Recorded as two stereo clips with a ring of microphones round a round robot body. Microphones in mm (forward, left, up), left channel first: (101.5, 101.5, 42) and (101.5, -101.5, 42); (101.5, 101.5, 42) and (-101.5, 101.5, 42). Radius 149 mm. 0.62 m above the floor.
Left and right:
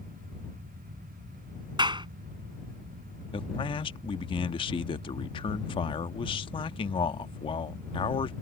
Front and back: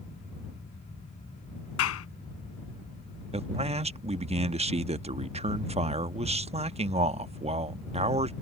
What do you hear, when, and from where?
1.8 s a clap: 20° right
3.3 s a man speaking: 140° left